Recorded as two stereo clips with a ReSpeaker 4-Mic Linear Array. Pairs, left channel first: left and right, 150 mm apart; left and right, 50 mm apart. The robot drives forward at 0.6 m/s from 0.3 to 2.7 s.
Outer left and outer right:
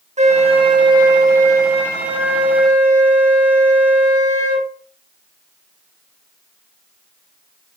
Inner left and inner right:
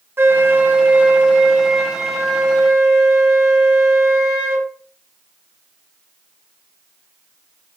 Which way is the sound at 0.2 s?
45° right (ahead or behind).